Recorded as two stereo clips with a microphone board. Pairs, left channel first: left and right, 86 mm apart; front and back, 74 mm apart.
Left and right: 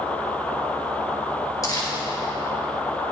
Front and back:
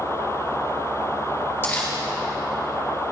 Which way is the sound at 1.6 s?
55° left.